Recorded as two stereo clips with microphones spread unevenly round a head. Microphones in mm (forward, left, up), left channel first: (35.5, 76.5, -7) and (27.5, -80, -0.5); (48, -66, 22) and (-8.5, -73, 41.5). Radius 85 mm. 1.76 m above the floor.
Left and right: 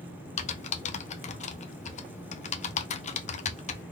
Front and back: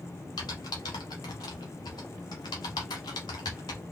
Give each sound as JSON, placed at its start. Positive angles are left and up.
{"t": 0.4, "sound": "typing on a keyboard", "azimuth_deg": 55, "distance_m": 0.5}